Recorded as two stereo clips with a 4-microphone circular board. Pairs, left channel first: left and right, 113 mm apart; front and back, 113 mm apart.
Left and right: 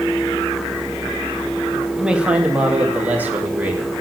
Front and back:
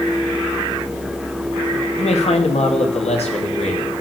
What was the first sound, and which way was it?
A man speaking, 10° right.